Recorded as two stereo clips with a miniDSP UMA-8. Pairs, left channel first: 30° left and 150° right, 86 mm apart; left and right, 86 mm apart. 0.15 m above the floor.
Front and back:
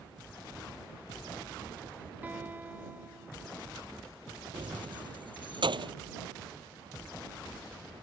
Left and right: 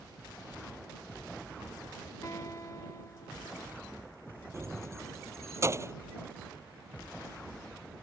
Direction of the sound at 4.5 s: 145° right.